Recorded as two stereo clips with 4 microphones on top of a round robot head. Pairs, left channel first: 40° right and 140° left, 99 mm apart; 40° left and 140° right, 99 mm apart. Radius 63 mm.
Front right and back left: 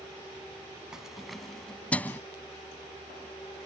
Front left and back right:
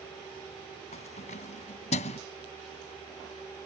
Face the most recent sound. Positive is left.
turn(degrees=30)